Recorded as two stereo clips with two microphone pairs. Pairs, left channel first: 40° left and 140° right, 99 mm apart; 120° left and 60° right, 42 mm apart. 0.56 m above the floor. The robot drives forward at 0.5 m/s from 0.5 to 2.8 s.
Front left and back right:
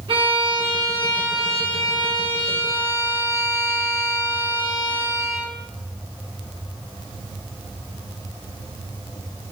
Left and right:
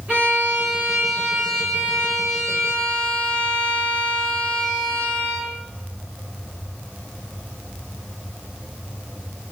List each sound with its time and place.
0.1 s a violin: 115° right, 1.0 m; by 5.5 s 150° right, 1.8 m